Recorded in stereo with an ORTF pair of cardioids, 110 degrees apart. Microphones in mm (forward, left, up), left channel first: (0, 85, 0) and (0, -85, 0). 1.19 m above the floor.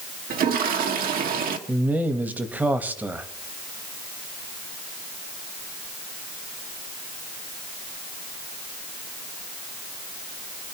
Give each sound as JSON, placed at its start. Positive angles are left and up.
{"t": 0.3, "sound": "a toilet flushing", "azimuth_deg": -60, "distance_m": 1.8}
{"t": 1.7, "sound": "a man speaking", "azimuth_deg": -10, "distance_m": 1.4}